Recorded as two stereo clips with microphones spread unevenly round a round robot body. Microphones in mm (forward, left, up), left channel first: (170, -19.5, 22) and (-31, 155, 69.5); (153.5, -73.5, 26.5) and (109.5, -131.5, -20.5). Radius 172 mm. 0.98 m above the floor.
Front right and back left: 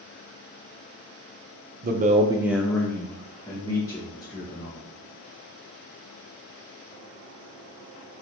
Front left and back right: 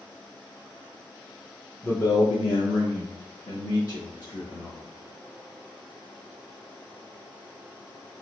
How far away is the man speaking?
About 0.5 m.